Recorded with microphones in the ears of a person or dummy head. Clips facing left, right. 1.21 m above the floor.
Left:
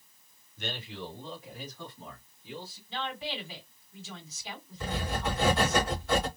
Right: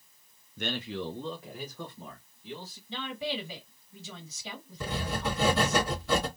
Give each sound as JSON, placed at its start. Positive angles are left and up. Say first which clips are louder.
{"t": 0.6, "sound": "a man speaking", "louder": "right 5 dB", "side_deg": -45, "distance_m": 0.5}
{"t": 2.9, "sound": "a woman speaking", "louder": "right 2 dB", "side_deg": -80, "distance_m": 2.0}
{"t": 4.8, "sound": "writing", "louder": "even", "side_deg": -85, "distance_m": 1.4}